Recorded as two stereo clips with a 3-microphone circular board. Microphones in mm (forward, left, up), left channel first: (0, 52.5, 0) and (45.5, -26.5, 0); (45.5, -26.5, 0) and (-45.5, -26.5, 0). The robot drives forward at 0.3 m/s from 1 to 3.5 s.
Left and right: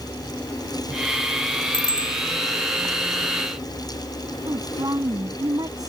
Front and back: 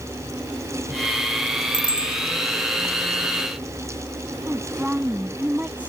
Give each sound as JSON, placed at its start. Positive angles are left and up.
{"t": 1.7, "sound": "a bicycle bell", "azimuth_deg": 150}
{"t": 4.5, "sound": "a woman speaking", "azimuth_deg": -105}